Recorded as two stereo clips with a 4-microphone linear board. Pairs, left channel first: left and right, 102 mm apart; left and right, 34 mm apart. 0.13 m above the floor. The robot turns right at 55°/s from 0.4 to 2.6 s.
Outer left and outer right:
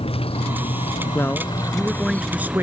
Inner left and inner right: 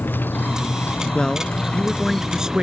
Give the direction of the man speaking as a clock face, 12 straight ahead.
7 o'clock.